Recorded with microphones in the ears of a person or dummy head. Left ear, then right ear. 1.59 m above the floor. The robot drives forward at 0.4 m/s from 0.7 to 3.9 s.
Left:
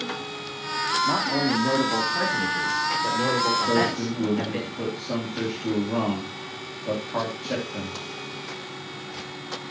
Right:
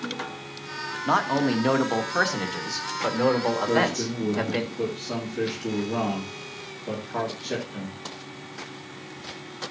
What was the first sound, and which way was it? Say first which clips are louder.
A man speaking: even; 70° right (ahead or behind).